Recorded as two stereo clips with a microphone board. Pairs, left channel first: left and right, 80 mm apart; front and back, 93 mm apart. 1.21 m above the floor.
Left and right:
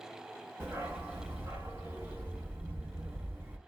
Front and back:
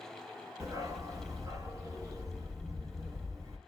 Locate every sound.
0.6 s a dog barking: 145° right, 0.8 m